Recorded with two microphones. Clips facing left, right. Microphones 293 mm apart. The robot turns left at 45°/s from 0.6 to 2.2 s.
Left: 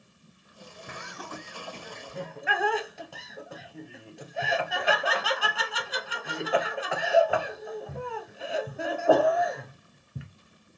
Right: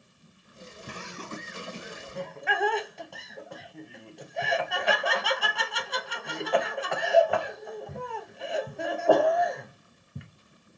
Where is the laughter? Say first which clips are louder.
Right 2 dB; 40° right (ahead or behind), 0.6 m; by 10.3 s centre (ahead or behind), 0.6 m.